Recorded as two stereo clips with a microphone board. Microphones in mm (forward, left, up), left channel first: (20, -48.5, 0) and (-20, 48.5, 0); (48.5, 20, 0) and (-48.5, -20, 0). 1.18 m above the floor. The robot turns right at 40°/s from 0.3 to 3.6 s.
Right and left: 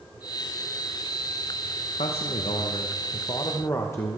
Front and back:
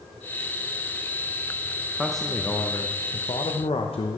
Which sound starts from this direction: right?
A man speaking, at 2.0 s.